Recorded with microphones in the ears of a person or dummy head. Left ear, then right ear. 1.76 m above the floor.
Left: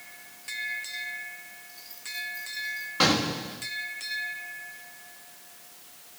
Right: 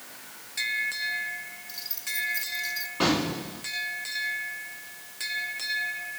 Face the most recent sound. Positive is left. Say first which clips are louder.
# left 3 dB
turn(degrees=65)  # may be behind; listen again after turning